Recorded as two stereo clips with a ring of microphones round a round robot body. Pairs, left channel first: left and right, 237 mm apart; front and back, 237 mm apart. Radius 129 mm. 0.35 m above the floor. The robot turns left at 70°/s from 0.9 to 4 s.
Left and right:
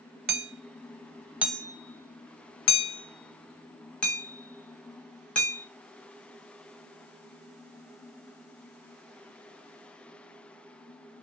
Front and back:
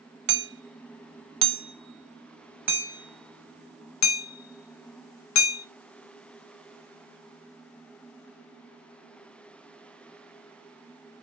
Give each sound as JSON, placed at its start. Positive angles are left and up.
{"t": 0.3, "sound": "hammering", "azimuth_deg": -140, "distance_m": 0.7}